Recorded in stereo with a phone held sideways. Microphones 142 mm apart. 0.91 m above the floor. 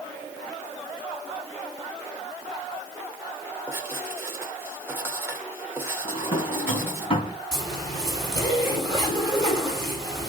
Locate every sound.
3.7 s writing: 15° right (ahead or behind), 2.5 m
6.0 s a drawer: 40° left (ahead or behind), 3 m
7.5 s a zipper: 25° left (ahead or behind), 5 m